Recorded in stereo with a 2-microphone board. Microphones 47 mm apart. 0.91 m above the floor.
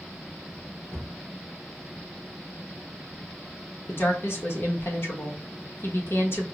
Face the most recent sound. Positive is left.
turn(degrees=55)  # may be behind; listen again after turning